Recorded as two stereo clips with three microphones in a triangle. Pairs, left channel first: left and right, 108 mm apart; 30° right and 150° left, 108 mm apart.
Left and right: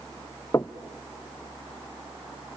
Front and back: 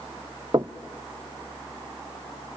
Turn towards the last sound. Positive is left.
turn(degrees=140)